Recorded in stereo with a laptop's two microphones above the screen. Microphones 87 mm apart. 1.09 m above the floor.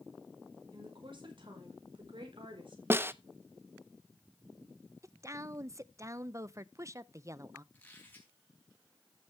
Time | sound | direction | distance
0.7 | a woman speaking | 70° right (ahead or behind) | 5 m
2.9 | a snare drum | 25° right (ahead or behind) | 0.6 m
5.0 | a woman speaking | 35° right (ahead or behind) | 0.5 m
7.7 | a squeak | 20° left (ahead or behind) | 5 m